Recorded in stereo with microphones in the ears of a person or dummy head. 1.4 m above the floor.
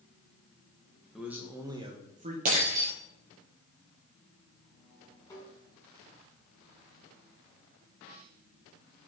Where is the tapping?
15° left (ahead or behind), 4 m.